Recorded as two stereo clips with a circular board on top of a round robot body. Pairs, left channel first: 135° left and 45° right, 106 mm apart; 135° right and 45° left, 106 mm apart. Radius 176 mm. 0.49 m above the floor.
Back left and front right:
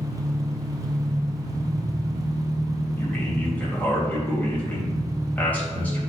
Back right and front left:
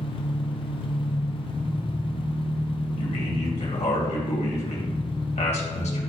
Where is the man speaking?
150° right, 3 m.